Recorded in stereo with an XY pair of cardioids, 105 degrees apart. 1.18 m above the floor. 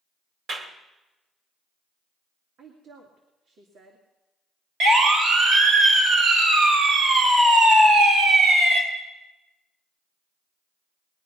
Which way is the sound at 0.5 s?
50° right.